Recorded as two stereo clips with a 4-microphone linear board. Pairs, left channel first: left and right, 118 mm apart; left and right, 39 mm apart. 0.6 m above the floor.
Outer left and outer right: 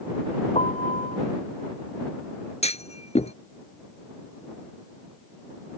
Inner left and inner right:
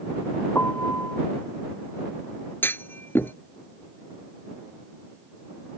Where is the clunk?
65° left (ahead or behind).